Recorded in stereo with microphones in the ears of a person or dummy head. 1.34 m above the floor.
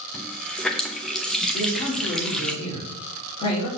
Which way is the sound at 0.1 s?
Centre (ahead or behind).